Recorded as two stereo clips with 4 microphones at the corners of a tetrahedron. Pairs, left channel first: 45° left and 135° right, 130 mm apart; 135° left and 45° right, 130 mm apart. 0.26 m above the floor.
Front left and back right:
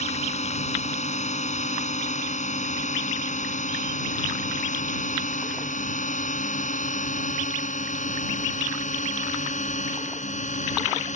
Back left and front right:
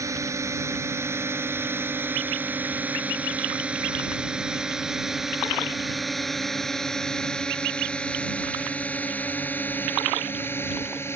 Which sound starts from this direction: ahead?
A drone, at 0.0 s.